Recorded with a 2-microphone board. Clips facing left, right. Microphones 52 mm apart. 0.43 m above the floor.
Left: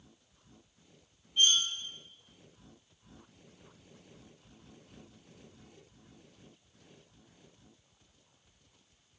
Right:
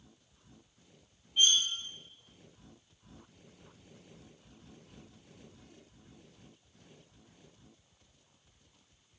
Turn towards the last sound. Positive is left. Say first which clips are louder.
# even
turn(degrees=-10)  # may be behind; listen again after turning